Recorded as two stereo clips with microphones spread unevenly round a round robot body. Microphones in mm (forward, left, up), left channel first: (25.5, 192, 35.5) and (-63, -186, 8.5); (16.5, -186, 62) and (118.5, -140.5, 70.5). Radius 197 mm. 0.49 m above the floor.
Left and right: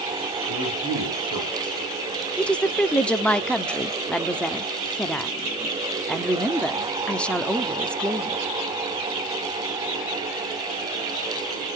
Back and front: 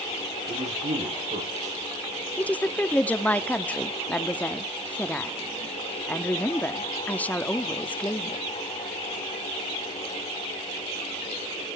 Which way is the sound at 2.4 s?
170° left.